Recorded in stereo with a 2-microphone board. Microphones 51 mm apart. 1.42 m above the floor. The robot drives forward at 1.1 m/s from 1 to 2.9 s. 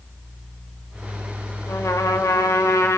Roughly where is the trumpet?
Left.